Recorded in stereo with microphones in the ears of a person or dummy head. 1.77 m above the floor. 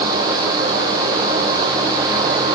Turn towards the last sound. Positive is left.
No sound to turn to.